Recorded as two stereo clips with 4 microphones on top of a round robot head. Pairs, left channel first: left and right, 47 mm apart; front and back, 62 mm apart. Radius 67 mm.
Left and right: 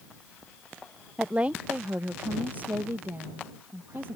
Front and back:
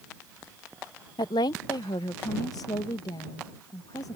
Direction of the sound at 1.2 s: 15° right.